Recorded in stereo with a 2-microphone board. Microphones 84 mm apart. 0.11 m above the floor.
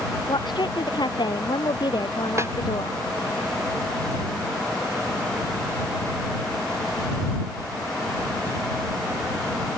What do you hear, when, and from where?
0.3 s a woman speaking: 70° left (ahead or behind)
2.4 s a snare drum: 35° right (ahead or behind)